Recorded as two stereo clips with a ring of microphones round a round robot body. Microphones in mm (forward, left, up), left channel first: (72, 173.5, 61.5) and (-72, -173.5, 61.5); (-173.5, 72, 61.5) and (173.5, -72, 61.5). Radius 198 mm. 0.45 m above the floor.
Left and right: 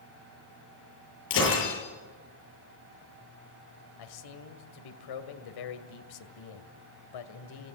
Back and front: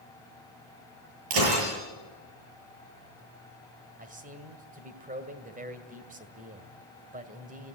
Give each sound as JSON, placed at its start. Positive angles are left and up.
{"t": 1.3, "sound": "breaking glass", "azimuth_deg": 10, "distance_m": 8.0}
{"t": 4.0, "sound": "a man speaking", "azimuth_deg": 45, "distance_m": 2.0}